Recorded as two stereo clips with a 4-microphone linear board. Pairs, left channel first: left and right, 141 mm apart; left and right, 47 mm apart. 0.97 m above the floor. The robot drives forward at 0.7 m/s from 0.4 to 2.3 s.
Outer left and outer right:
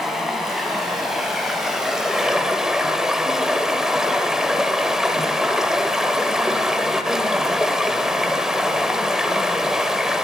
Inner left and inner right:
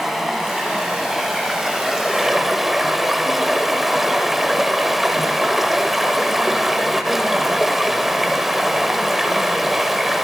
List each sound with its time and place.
0.0 s running water: centre (ahead or behind), 2.5 m; by 10.2 s 5° right (ahead or behind), 1.2 m